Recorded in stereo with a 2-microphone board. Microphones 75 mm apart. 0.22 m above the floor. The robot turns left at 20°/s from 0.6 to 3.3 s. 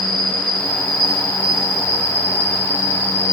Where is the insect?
100° right, 6 m; by 3.4 s 155° right, 6 m.